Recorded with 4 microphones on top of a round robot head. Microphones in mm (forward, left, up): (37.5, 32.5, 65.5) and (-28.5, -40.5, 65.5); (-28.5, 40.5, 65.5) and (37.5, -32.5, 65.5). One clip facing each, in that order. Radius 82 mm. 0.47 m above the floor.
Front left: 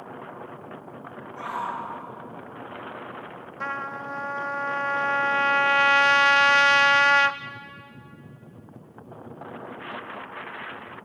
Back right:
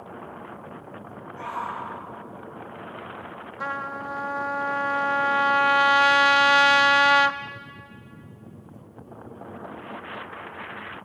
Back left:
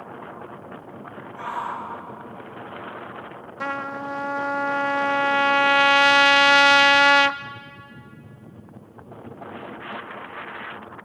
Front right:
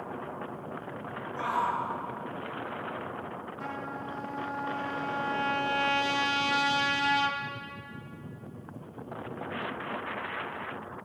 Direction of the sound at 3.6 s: 150° left.